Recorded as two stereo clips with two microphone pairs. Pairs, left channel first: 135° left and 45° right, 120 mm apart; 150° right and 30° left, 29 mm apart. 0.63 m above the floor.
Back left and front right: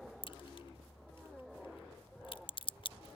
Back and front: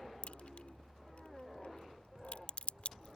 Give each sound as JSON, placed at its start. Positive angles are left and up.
{"t": 0.2, "sound": "a crack", "azimuth_deg": 175}